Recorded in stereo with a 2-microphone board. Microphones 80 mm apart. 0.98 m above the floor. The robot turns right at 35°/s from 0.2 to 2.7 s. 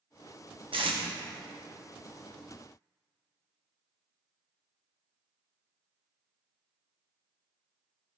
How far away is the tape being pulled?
About 0.9 m.